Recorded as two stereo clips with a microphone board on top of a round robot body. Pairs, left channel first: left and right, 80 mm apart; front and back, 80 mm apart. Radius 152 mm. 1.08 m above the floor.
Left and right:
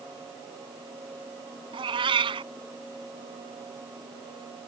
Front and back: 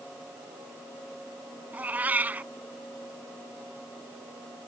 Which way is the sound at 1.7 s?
105° right.